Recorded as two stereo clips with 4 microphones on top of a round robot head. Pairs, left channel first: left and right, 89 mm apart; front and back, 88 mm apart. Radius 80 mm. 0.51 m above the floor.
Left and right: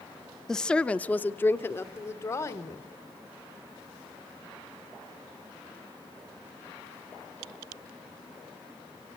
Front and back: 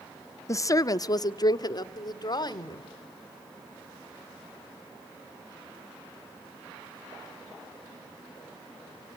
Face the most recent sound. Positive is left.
turn(degrees=30)